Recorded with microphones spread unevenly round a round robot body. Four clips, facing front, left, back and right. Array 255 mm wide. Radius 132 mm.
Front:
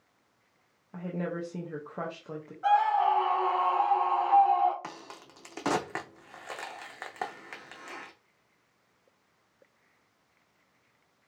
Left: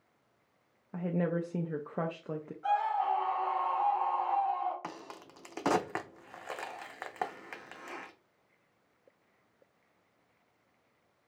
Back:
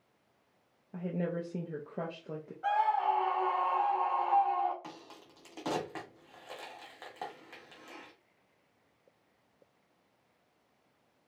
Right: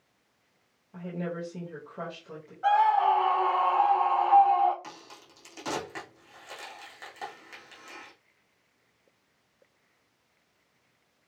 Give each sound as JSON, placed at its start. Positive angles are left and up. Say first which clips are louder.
{"t": 0.9, "sound": "a woman speaking", "louder": "left 3 dB, front 1 dB", "azimuth_deg": 85, "distance_m": 0.7}
{"t": 2.6, "sound": "a scream", "louder": "right 8 dB, front 5 dB", "azimuth_deg": -80, "distance_m": 1.9}
{"t": 4.8, "sound": "a crack", "louder": "left 3 dB, front 5 dB", "azimuth_deg": 40, "distance_m": 0.6}